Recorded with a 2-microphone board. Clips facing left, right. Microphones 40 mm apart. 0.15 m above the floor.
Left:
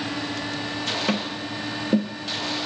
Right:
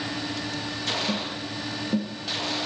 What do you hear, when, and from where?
1.1 s tapping: 70° left (ahead or behind), 0.8 m